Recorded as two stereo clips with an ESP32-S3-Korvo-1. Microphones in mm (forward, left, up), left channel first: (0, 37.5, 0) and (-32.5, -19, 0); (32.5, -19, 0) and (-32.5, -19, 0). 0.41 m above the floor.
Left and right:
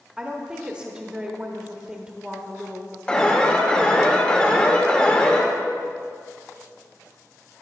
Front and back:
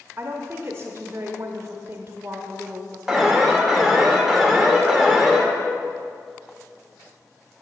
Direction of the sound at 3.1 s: 100° left.